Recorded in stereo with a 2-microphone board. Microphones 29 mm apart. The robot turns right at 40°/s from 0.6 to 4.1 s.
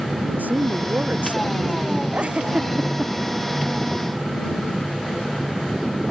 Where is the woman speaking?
90° right; by 2.0 s 30° right.